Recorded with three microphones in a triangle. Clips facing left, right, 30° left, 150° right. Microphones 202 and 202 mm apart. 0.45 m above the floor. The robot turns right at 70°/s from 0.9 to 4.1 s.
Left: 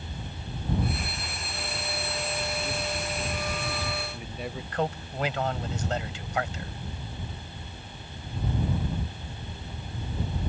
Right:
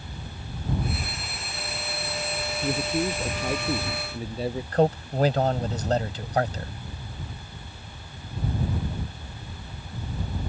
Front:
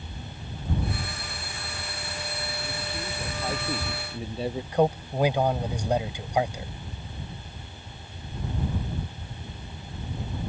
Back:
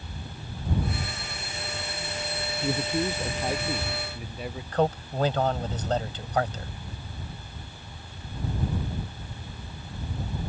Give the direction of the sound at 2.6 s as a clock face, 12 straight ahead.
4 o'clock.